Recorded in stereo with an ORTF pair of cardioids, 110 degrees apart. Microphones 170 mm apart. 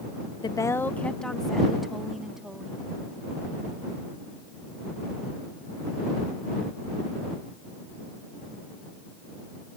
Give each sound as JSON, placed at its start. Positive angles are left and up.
{"t": 0.4, "sound": "a woman speaking", "azimuth_deg": 25}